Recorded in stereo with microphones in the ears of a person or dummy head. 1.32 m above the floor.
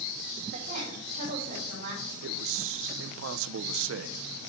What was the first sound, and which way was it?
A woman speaking, 60° right (ahead or behind).